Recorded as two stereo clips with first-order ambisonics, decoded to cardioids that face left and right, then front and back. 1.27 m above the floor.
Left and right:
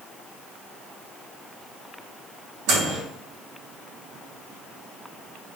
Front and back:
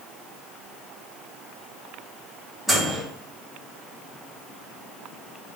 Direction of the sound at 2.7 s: 95° right.